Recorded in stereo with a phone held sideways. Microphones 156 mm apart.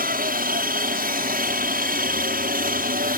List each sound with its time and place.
0.0 s a helicopter: 65° right (ahead or behind)